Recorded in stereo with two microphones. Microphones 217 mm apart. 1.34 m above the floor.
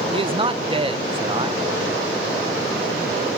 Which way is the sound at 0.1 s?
25° right (ahead or behind).